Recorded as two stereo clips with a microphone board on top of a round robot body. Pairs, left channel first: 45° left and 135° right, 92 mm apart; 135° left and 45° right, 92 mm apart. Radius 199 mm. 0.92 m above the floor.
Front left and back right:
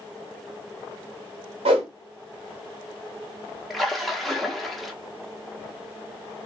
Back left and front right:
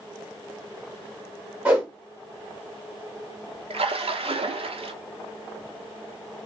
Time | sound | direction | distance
1.6 | a whoosh | 125° right | 0.8 m
3.7 | a splash | 45° right | 0.8 m